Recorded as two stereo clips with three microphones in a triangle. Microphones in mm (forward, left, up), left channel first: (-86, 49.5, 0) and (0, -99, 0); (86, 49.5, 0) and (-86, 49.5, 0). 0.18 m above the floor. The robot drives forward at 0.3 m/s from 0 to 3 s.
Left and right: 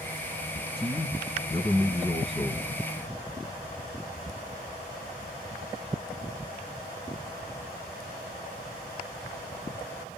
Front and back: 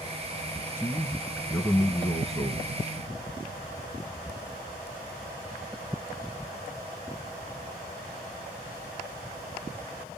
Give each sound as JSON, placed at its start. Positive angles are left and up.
{"t": 0.8, "sound": "a man speaking", "azimuth_deg": 60, "distance_m": 1.7}